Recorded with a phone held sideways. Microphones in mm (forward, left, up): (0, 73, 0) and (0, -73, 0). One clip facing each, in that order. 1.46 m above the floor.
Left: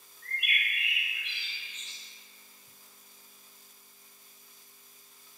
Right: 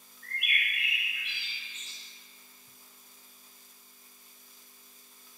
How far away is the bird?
About 0.8 m.